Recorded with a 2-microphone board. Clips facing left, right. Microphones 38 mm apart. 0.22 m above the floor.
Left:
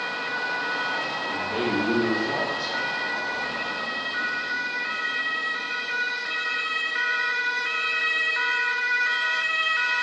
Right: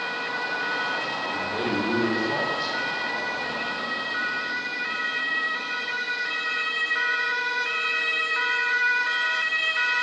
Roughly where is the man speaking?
Left.